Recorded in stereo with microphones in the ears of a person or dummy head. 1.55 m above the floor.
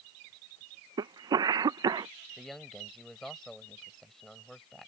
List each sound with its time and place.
1.0 s a cough: 25° right (ahead or behind)
2.4 s a man speaking: centre (ahead or behind)